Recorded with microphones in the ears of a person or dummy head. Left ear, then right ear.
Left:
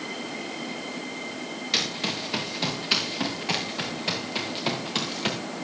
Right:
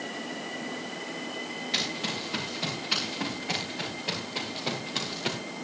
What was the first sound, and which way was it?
Running footsteps, 25° left (ahead or behind).